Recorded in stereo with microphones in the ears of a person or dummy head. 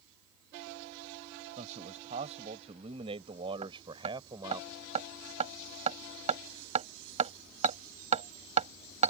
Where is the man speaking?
40° right (ahead or behind); by 4.6 s 20° right (ahead or behind).